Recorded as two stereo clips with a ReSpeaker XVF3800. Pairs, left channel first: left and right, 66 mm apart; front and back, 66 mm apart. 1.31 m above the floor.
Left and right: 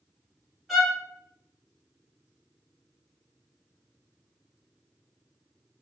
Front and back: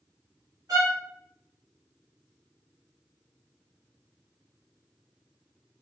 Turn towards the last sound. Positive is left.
turn(degrees=180)